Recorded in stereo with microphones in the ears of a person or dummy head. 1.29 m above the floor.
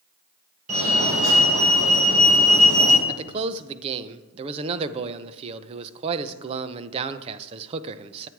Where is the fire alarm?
40° right (ahead or behind), 3 m.